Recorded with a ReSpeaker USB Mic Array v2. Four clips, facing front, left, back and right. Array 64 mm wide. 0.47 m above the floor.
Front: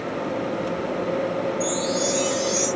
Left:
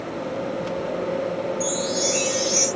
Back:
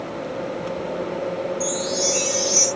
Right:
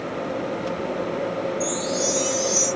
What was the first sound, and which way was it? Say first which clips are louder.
A chime: even, front 1 dB; 120° left.